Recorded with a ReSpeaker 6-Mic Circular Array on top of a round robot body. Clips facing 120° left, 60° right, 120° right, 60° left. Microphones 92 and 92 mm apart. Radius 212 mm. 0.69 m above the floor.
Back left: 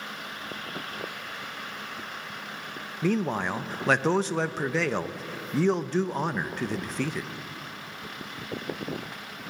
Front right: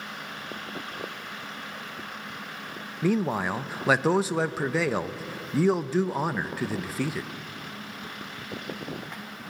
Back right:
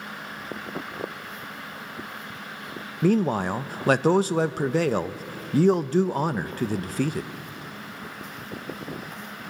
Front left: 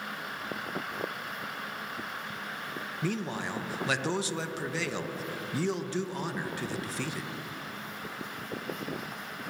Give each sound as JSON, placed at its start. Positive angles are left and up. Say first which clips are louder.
{"t": 3.0, "sound": "a man speaking", "louder": "front right 1 dB, back right 12 dB", "azimuth_deg": -140, "distance_m": 0.7}